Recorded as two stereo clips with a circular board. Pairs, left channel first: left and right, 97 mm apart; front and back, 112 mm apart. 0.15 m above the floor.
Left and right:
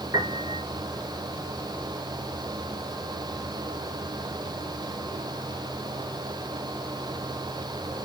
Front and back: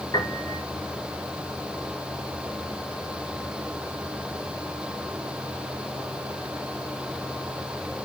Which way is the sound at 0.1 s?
45° right.